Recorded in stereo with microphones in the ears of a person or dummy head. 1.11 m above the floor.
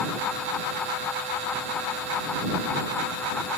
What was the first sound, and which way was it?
Only background noise.